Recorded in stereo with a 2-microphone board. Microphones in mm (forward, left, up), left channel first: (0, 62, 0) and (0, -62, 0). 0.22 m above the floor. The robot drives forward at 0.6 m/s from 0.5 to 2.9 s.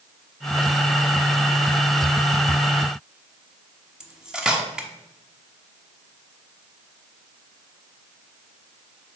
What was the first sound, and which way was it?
Cutlery clinking, 5° right (ahead or behind).